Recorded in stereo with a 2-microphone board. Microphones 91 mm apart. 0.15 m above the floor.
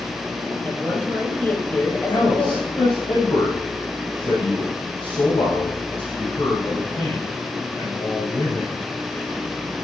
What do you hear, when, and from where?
0.7 s a woman speaking: 20° left (ahead or behind), 4 m
2.1 s a man speaking: 70° left (ahead or behind), 5.5 m